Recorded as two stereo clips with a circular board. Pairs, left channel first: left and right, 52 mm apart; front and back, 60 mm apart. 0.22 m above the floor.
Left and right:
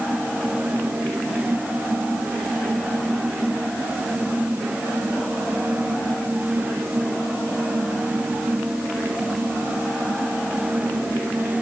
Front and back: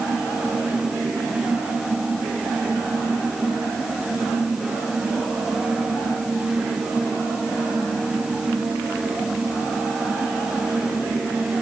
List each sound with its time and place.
Only background noise.